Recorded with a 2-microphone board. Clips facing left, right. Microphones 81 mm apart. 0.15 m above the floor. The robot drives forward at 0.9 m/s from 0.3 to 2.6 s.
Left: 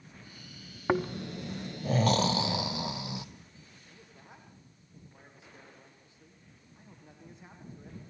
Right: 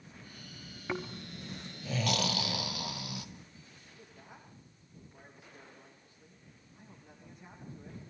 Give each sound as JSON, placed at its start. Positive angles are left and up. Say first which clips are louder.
{"t": 0.9, "sound": "snoring", "louder": "left 9 dB", "side_deg": 50, "distance_m": 0.6}
{"t": 3.9, "sound": "a man speaking", "louder": "right 1 dB", "side_deg": 20, "distance_m": 8.0}